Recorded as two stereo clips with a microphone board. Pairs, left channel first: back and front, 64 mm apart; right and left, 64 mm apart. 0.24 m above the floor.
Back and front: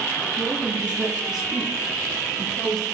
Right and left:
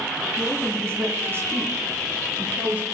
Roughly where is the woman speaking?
Ahead left.